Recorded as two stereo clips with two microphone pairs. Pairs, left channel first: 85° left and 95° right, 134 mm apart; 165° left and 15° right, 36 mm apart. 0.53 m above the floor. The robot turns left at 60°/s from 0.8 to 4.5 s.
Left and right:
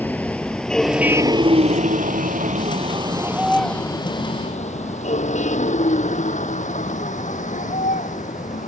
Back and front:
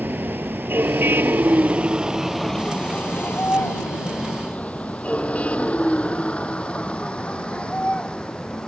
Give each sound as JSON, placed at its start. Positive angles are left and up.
{"t": 0.0, "sound": "a vehicle", "azimuth_deg": 5}